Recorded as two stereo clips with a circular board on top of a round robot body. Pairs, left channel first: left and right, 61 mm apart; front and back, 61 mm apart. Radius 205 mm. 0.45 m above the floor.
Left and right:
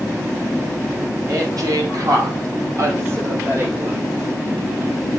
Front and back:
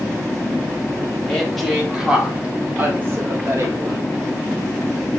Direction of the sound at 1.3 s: 80° right.